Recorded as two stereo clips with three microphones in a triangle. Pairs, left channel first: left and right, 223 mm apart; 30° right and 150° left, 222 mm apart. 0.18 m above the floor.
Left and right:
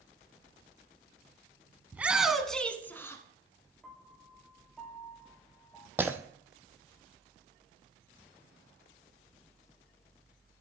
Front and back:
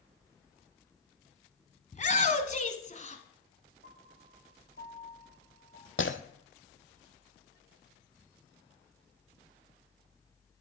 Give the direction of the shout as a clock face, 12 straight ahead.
12 o'clock.